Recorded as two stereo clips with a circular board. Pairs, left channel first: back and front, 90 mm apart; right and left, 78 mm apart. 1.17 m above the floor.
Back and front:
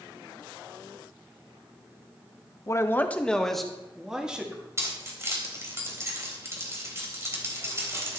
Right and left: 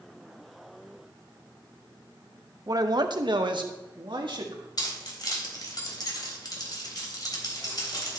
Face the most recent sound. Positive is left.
turn(degrees=-60)